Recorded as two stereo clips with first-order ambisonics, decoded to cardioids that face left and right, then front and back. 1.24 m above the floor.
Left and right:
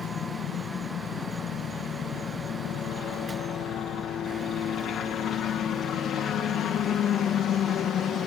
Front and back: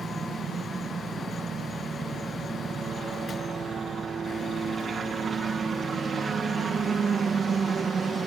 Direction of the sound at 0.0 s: 120° left.